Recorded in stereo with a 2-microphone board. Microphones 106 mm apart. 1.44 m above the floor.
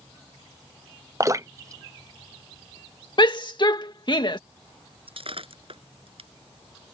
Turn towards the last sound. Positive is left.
turn(degrees=-60)  # may be behind; listen again after turning